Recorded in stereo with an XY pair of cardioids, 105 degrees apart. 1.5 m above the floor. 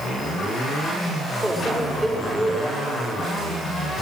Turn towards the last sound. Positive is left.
turn(degrees=-5)